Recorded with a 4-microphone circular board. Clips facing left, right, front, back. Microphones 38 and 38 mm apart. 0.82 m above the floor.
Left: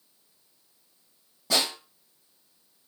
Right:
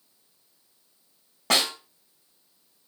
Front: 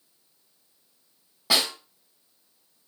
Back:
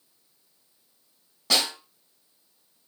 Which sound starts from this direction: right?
A snare drum, at 1.5 s.